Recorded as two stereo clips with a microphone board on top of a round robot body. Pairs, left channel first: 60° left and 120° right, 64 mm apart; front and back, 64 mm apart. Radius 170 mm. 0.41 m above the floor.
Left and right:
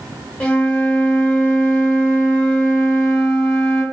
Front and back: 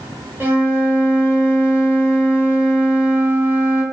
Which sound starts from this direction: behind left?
A flute, at 0.4 s.